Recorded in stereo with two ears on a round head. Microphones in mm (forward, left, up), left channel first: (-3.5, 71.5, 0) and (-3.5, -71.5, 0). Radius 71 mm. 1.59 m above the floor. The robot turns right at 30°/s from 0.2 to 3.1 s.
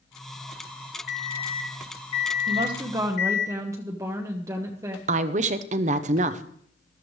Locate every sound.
1.1 s an alarm clock: 5° right, 2.5 m; by 3.5 s 55° left, 2.5 m
2.5 s a woman speaking: 35° right (ahead or behind), 0.9 m; by 5.0 s 20° right (ahead or behind), 0.9 m
5.1 s a woman speaking: 45° right (ahead or behind), 0.8 m